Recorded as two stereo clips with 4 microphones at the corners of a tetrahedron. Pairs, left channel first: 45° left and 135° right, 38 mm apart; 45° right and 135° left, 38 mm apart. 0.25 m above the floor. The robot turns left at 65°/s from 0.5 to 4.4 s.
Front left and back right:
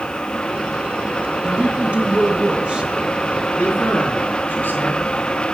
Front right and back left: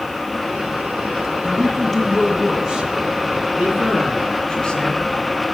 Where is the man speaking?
80° left, 3 m; by 5.5 s 25° left, 3 m.